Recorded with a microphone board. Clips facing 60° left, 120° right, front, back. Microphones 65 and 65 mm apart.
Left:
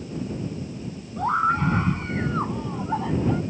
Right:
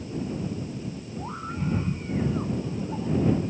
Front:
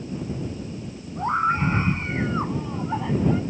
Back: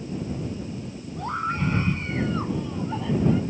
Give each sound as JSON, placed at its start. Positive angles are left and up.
{"t": 1.2, "sound": "a scream", "azimuth_deg": 65}